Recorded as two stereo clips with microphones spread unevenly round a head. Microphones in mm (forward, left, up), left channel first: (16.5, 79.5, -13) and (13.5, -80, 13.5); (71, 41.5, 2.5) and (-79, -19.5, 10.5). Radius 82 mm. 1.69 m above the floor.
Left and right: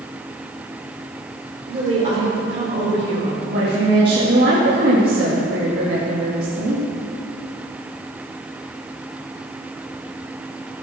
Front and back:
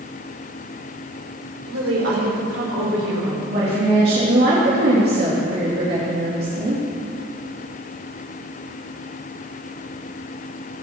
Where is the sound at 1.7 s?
145° right, 4.5 m.